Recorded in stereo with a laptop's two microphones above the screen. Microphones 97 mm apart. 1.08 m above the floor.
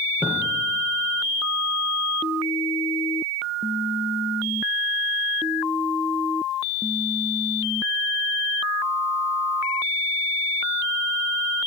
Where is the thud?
20° right (ahead or behind), 9 m.